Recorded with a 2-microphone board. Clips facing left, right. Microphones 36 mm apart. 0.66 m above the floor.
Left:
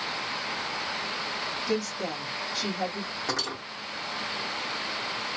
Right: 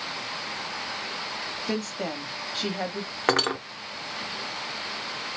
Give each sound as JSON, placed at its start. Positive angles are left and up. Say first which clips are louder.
{"t": 1.7, "sound": "a woman speaking", "louder": "even", "side_deg": -40, "distance_m": 1.2}
{"t": 3.3, "sound": "cutlery clinking", "louder": "right 10 dB", "side_deg": -55, "distance_m": 0.7}